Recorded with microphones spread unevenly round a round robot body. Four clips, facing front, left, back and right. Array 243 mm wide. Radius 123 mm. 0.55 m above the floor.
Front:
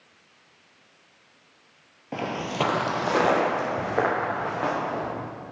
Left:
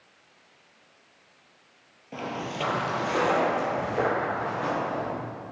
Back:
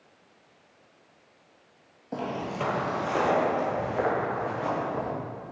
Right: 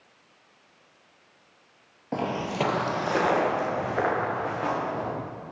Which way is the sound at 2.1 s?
65° right.